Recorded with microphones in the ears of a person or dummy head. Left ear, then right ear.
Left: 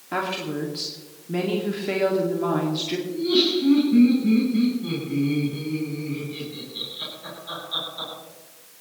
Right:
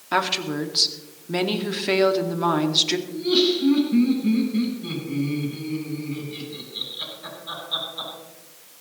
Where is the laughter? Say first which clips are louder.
Even; 15° right (ahead or behind), 9 m.